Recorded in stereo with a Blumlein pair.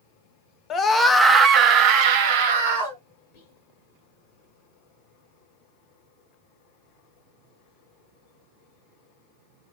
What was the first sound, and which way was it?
A scream, 25° left.